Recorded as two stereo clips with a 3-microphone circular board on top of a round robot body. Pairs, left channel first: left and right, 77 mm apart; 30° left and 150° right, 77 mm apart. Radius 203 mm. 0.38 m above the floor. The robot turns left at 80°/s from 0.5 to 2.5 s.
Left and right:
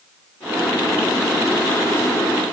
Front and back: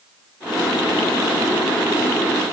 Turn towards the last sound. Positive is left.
No sound to turn to.